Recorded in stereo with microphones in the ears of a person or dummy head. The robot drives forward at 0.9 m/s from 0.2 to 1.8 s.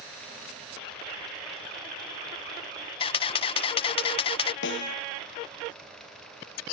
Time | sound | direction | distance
3.0 | a camera shutter | 30° left (ahead or behind) | ?
4.6 | a snare drum | 70° left (ahead or behind) | ?